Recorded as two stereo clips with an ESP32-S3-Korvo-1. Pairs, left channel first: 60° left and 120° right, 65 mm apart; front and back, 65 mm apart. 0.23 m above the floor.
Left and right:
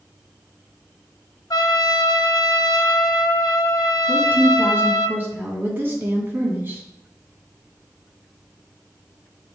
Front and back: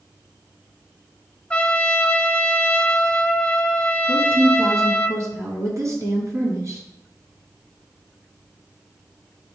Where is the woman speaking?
170° right, 2.0 m.